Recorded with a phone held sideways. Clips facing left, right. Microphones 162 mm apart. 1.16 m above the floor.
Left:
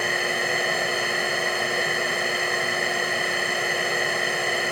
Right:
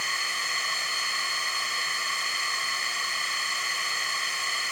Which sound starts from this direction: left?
A machine running, at 0.0 s.